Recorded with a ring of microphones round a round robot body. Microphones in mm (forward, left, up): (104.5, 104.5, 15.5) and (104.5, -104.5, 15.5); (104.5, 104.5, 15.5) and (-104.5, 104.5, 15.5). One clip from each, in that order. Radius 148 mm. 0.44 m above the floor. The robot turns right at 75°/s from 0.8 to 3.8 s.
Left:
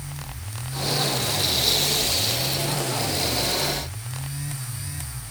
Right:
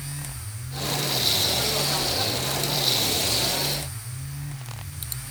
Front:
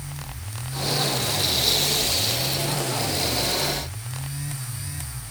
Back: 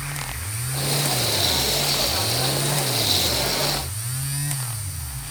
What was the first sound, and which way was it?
Only background noise.